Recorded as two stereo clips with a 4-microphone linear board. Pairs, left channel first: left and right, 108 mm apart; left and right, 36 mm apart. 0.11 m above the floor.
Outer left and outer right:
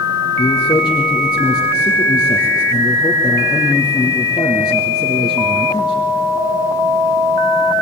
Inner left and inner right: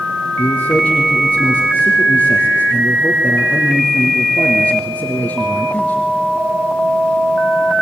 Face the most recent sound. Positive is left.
turn(degrees=40)  # may be behind; listen again after turning